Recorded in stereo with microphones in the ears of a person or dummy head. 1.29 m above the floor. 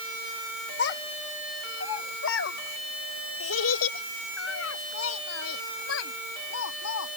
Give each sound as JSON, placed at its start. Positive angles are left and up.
{"t": 0.8, "sound": "a child speaking", "side_deg": 55}